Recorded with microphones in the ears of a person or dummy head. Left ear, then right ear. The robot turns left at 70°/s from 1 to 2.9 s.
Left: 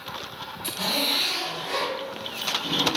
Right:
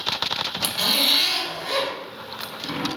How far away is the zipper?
About 0.8 m.